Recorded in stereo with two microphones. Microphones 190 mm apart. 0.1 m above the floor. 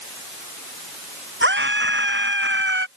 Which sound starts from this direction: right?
A scream, at 1.4 s.